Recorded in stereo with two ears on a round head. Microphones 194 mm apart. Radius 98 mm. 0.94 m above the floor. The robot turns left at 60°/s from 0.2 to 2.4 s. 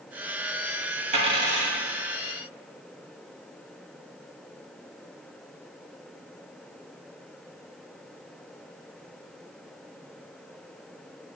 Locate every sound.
1.1 s a dropped coin: 35° right (ahead or behind), 2.0 m; by 1.8 s 5° left (ahead or behind), 2.0 m